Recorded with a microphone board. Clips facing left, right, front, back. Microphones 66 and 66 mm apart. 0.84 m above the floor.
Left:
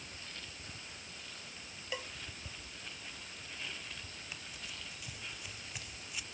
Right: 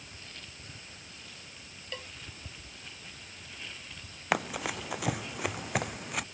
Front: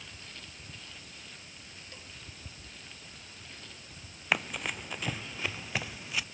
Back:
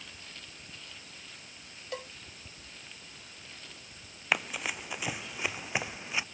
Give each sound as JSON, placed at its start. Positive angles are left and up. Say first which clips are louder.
{"t": 1.9, "sound": "a cowbell", "louder": "left 1 dB, back 15 dB", "azimuth_deg": 170}
{"t": 4.3, "sound": "running footsteps", "louder": "right 21 dB, even", "azimuth_deg": -90}